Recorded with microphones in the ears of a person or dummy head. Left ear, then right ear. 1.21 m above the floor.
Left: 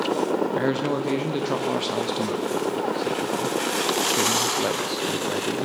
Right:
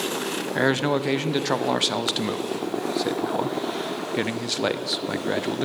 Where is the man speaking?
40° right (ahead or behind), 0.6 m.